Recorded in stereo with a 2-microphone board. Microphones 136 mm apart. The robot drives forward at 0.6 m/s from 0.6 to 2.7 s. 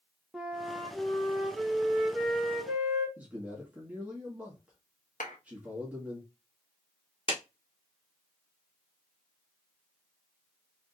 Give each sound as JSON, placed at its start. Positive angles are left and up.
{"t": 0.3, "sound": "a flute", "side_deg": -5, "distance_m": 0.9}
{"t": 3.2, "sound": "a man speaking", "side_deg": -10, "distance_m": 1.7}
{"t": 5.2, "sound": "a clap", "side_deg": 80, "distance_m": 1.5}
{"t": 7.3, "sound": "a clap", "side_deg": 45, "distance_m": 1.1}